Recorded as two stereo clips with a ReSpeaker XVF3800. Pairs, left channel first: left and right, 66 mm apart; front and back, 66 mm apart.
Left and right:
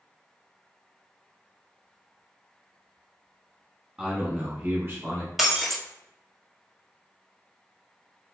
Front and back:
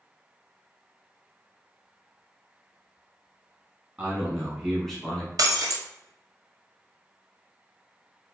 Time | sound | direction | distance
4.0 | a man speaking | 145° right | 1.0 m
5.4 | breaking glass | 175° right | 0.6 m